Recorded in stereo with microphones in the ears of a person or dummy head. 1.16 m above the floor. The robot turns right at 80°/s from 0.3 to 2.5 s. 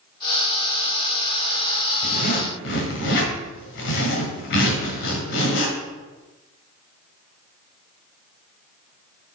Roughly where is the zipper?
Ahead left.